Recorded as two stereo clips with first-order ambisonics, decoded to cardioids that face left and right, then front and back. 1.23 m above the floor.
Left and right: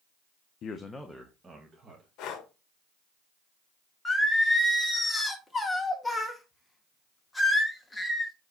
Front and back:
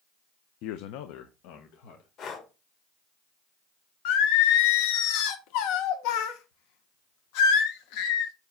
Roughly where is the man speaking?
Ahead left.